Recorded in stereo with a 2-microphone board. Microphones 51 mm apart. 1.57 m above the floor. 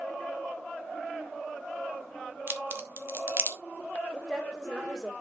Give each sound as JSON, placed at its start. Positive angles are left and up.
{"t": 2.5, "sound": "a crack", "side_deg": -45, "distance_m": 1.3}
{"t": 4.1, "sound": "a woman speaking", "side_deg": -5, "distance_m": 3.0}